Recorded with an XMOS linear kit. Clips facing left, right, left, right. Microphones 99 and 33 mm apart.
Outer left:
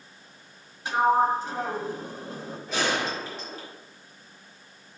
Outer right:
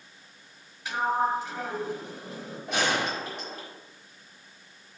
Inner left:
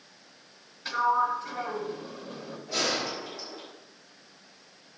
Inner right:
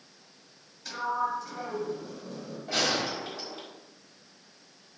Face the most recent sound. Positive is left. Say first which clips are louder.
# even, inner right 1 dB
turn(degrees=-70)  # may be behind; listen again after turning